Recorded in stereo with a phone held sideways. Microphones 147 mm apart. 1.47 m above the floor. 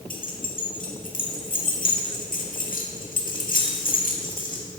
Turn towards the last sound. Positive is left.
turn(degrees=70)  # may be behind; listen again after turning